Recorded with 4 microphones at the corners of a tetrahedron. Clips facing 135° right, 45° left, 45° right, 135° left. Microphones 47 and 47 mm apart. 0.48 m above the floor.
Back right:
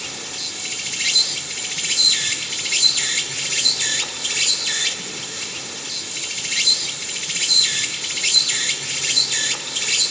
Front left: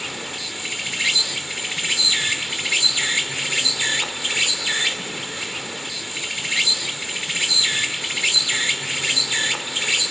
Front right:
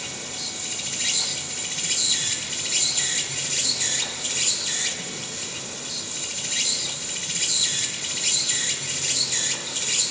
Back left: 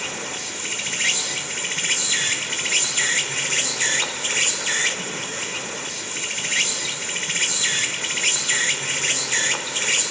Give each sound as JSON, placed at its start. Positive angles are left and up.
{"t": 0.0, "sound": "an insect", "azimuth_deg": 115, "distance_m": 1.1}